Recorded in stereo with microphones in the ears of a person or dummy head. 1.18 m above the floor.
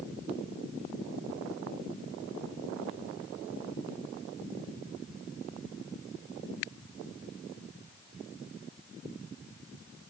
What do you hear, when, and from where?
Only background noise.